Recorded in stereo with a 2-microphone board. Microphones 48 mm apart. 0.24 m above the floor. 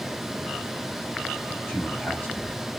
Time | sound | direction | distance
1.7 | a man speaking | 30° left (ahead or behind) | 1.4 m